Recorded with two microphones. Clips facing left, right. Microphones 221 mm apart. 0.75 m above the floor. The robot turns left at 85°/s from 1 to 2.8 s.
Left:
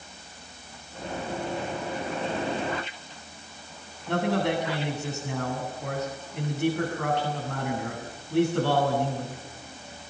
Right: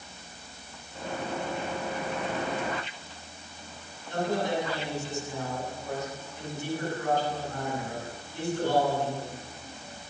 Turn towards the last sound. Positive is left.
turn(degrees=70)  # may be behind; listen again after turning